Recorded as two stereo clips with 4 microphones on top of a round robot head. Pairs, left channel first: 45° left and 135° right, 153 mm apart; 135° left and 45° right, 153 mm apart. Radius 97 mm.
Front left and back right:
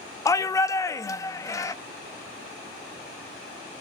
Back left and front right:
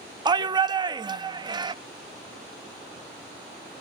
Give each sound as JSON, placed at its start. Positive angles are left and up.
{"t": 0.2, "sound": "a shout", "azimuth_deg": -10, "distance_m": 0.6}